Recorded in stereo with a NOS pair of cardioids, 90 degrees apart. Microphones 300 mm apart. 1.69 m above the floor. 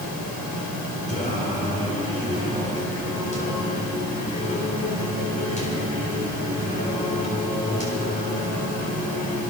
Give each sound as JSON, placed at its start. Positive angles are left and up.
{"t": 0.0, "sound": "a fan", "azimuth_deg": 65, "distance_m": 6.5}
{"t": 1.1, "sound": "singing", "azimuth_deg": 25, "distance_m": 7.5}